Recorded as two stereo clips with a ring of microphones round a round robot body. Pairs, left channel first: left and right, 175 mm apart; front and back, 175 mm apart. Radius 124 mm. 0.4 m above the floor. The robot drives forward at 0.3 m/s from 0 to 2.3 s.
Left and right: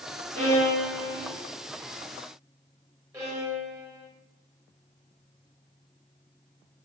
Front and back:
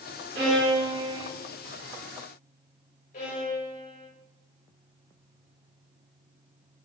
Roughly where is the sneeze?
No sneeze in this recording.